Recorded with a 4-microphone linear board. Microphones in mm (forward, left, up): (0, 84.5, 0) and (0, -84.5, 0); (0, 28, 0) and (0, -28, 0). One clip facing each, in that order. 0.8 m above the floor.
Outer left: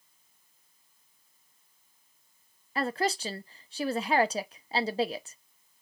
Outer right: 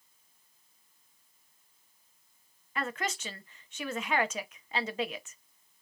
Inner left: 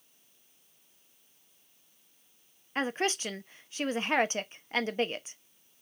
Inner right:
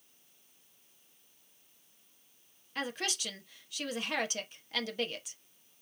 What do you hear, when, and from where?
2.8 s a woman speaking: 35° left (ahead or behind), 0.6 m